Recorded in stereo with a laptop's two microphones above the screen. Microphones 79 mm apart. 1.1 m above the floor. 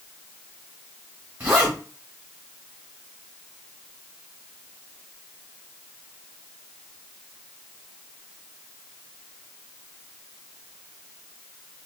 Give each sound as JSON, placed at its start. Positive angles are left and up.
{"t": 1.4, "sound": "a zipper", "side_deg": -25, "distance_m": 1.6}